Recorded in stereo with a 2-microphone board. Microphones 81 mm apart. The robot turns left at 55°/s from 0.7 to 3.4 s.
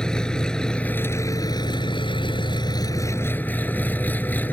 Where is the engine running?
170° left; by 4.5 s 20° left.